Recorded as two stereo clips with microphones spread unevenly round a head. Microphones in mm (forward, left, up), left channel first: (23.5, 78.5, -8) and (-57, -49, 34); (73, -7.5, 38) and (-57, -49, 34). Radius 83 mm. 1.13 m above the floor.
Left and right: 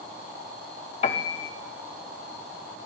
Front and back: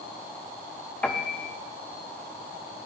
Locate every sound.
1.0 s a piano: 85° left, 0.7 m